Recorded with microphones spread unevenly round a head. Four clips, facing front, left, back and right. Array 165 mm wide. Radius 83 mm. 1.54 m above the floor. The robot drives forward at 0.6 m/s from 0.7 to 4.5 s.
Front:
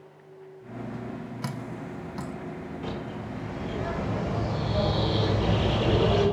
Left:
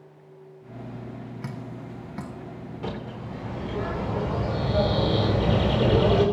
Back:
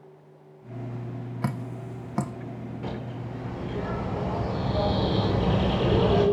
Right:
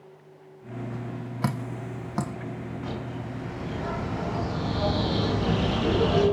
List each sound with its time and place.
1.4 s dripping: 105° right, 0.6 m; by 2.3 s 150° right, 0.9 m
2.8 s a bird: 115° left, 4 m; by 6.2 s 125° left, 4.5 m